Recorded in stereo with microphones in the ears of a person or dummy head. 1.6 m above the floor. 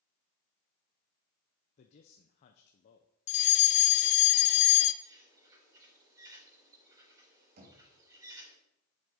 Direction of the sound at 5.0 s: 20° right (ahead or behind).